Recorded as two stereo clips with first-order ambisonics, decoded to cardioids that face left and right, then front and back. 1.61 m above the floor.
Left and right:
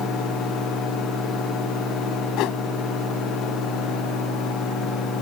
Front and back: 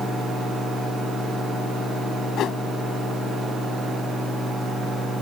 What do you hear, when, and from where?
2.4 s a whoosh: 55° left